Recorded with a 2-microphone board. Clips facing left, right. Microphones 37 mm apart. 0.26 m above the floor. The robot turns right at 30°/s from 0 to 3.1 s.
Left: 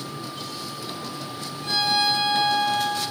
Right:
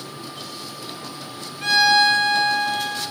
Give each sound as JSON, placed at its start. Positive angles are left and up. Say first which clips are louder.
{"t": 1.6, "sound": "a violin", "louder": "right 7 dB", "azimuth_deg": -80, "distance_m": 0.9}